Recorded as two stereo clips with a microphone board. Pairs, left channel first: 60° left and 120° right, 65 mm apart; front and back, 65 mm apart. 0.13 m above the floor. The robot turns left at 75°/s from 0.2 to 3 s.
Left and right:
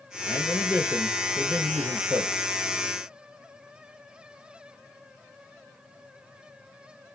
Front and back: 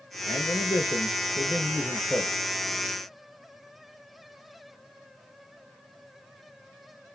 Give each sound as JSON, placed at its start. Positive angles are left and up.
{"t": 0.3, "sound": "a man speaking", "azimuth_deg": 40, "distance_m": 3.0}